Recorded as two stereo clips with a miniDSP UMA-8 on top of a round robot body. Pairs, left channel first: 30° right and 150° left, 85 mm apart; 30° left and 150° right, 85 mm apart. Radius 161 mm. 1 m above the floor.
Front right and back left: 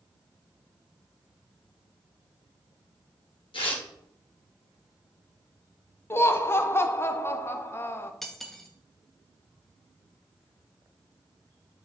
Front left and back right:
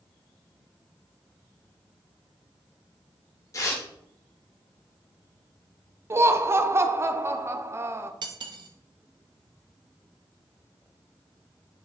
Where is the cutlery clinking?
120° right, 0.7 m.